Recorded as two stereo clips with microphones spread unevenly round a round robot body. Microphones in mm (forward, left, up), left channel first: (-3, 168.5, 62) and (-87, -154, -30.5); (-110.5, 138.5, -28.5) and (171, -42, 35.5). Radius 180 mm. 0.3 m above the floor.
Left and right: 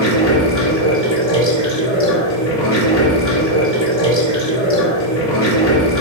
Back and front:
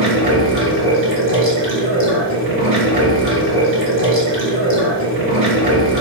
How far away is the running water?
About 4 m.